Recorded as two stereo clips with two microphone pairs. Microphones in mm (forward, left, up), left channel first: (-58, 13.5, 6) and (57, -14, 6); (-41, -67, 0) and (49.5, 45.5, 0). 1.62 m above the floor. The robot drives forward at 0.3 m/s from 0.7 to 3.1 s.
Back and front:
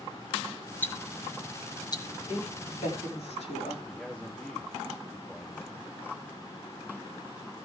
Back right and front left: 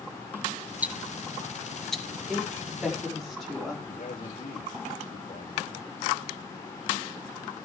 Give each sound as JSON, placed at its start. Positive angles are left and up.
{"t": 0.8, "sound": "ticking", "azimuth_deg": 115, "distance_m": 0.9}
{"t": 2.3, "sound": "a woman speaking", "azimuth_deg": 140, "distance_m": 4.5}
{"t": 3.9, "sound": "a man speaking", "azimuth_deg": -115, "distance_m": 2.5}